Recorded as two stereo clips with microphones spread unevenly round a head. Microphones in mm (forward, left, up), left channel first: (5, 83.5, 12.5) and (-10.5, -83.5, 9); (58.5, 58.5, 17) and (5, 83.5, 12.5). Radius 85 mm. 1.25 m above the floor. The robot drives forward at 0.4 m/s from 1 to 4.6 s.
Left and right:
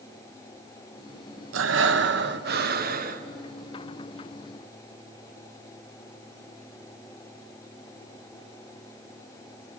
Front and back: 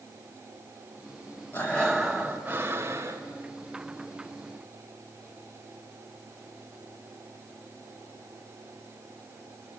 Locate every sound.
1.5 s breathing: 105° right, 0.8 m; by 3.2 s 135° right, 1.2 m